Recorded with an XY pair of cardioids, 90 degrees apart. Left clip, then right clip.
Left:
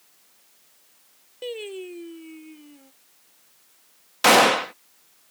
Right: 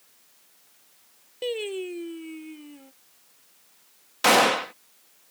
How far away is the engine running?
No engine running in this recording.